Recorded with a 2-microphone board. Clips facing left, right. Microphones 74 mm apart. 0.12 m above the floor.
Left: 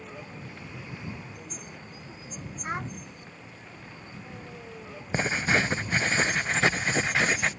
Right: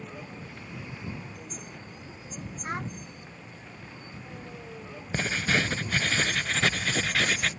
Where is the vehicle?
5° left (ahead or behind).